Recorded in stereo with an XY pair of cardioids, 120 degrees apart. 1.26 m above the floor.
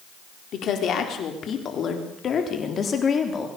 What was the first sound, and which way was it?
A woman speaking, 55° left.